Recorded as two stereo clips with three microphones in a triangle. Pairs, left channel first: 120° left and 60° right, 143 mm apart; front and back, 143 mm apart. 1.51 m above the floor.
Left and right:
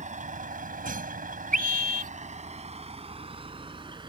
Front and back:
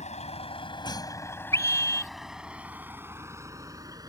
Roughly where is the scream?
Right.